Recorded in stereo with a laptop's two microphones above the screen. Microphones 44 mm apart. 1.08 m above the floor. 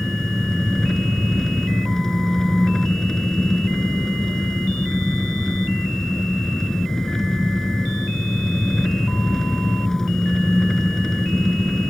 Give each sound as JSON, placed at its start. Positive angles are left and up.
{"t": 0.0, "sound": "an engine running", "side_deg": 10}